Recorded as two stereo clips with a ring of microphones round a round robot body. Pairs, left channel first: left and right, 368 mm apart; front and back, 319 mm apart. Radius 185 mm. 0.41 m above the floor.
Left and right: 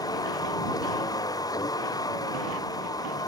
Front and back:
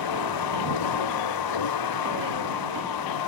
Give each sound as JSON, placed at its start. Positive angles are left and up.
{"t": 0.0, "sound": "a vehicle", "azimuth_deg": 10}